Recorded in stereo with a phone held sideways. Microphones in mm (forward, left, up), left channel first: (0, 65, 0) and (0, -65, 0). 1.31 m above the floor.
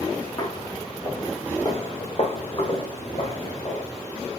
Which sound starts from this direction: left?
Footsteps, at 0.4 s.